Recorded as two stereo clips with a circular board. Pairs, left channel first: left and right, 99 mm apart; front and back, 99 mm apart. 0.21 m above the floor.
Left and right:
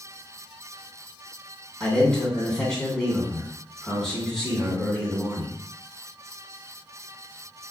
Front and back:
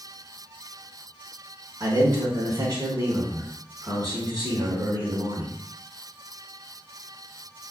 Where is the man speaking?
170° left, 2 m.